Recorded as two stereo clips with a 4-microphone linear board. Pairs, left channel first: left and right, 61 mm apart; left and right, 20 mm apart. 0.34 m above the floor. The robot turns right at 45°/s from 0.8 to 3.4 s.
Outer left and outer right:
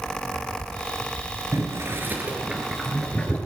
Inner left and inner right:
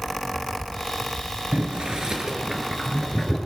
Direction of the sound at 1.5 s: 55° right (ahead or behind).